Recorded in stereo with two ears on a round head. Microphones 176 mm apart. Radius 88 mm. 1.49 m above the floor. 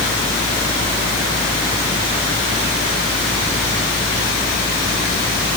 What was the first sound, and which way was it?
Only background noise.